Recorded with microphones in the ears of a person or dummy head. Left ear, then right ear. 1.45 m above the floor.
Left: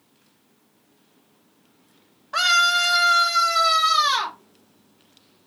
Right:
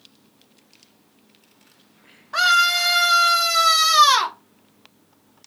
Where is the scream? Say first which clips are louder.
Right 1 dB; 10° left (ahead or behind), 0.7 m; by 4.4 s 65° right (ahead or behind), 1.0 m.